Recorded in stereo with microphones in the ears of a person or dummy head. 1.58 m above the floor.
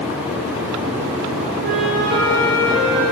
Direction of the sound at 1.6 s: 55° right (ahead or behind).